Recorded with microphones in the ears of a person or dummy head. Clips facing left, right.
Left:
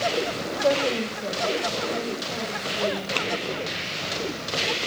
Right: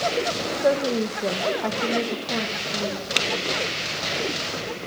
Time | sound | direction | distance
0.6 | a woman speaking | 10° right (ahead or behind) | 0.8 m
3.2 | typing on a keyboard | 20° right (ahead or behind) | 0.5 m